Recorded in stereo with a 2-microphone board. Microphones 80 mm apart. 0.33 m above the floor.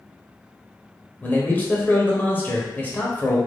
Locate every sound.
1.2 s a man speaking: 25° left (ahead or behind), 0.9 m